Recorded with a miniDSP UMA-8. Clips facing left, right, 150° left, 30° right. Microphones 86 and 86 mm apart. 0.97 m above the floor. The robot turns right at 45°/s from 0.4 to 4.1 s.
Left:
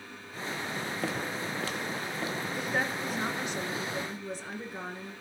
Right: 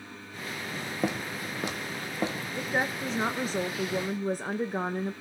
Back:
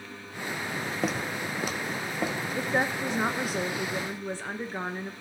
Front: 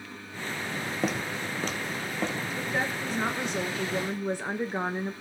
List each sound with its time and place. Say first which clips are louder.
1.0 s footsteps: right 4 dB, even; 120° right, 1.0 m; by 2.4 s 130° right, 1.2 m
2.5 s a woman speaking: right 3 dB, back 4 dB; 170° right, 0.6 m; by 5.1 s 100° right, 0.6 m